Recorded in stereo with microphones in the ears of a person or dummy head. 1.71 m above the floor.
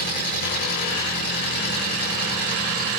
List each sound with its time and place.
0.0 s an engine running: 55° left (ahead or behind), 4 m